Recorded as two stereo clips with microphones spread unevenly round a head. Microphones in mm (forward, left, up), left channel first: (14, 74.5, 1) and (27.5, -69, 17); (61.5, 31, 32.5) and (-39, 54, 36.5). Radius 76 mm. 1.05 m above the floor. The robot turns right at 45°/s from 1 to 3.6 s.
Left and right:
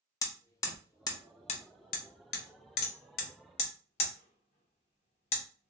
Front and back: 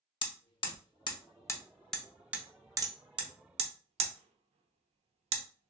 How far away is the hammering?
About 0.6 m.